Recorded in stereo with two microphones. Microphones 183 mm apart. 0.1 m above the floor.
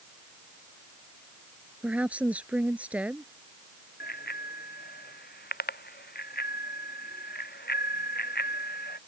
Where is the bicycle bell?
60° left (ahead or behind).